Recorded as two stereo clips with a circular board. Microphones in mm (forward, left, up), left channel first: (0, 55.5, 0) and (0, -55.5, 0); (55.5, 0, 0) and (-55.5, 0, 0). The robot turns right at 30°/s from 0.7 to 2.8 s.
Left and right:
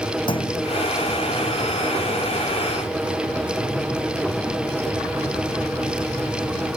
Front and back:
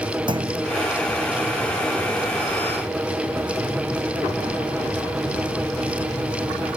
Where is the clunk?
135° left.